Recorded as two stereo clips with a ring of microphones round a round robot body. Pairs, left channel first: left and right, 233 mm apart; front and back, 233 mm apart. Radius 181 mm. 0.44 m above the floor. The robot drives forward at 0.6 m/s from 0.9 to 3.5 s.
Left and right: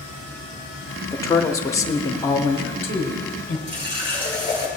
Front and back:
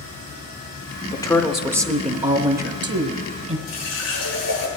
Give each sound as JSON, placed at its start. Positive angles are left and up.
{"t": 1.1, "sound": "a woman speaking", "azimuth_deg": 35, "distance_m": 0.8}
{"t": 3.7, "sound": "a running tap", "azimuth_deg": -25, "distance_m": 5.5}